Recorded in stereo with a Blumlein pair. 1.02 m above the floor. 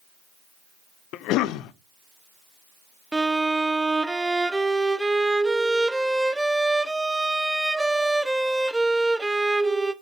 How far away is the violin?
About 0.5 m.